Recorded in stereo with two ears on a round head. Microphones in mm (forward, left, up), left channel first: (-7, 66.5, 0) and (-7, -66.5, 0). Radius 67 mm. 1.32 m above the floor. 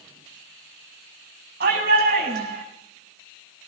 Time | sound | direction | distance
1.6 | a shout | 75° right (ahead or behind) | 8.5 m